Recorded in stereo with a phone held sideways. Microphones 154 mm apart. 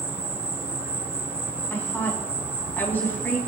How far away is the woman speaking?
About 5.5 m.